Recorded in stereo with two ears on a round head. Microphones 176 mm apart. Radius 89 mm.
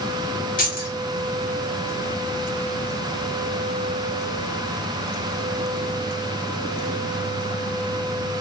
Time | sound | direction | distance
0.6 | keys jangling | 45° left (ahead or behind) | 1.2 m